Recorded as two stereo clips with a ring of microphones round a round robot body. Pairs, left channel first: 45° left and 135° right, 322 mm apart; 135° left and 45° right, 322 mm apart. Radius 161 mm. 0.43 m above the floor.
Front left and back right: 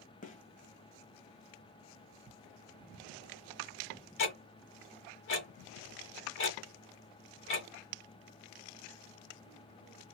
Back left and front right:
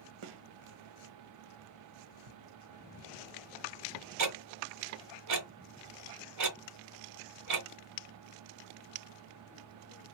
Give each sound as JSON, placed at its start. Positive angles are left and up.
{"t": 0.2, "sound": "a gunshot", "azimuth_deg": -25, "distance_m": 0.7}
{"t": 2.3, "sound": "ticking", "azimuth_deg": -65, "distance_m": 0.7}
{"t": 4.2, "sound": "ticking", "azimuth_deg": -10, "distance_m": 1.4}